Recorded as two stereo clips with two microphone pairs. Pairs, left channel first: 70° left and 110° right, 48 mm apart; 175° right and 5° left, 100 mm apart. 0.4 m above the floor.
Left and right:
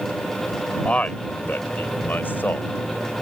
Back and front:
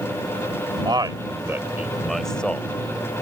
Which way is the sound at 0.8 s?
20° left.